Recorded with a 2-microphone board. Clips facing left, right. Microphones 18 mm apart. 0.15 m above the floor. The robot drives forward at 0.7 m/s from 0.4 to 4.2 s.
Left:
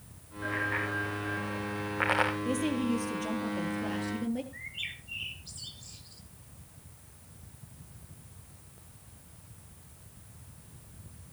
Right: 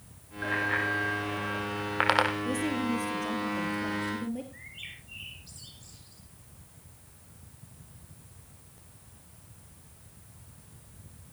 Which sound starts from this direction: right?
A bicycle bell, at 0.4 s.